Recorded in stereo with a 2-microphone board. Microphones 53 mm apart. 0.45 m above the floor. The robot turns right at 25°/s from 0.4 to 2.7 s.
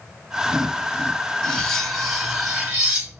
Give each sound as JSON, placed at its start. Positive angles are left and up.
{"t": 1.4, "sound": "cutlery clinking", "azimuth_deg": 165, "distance_m": 1.3}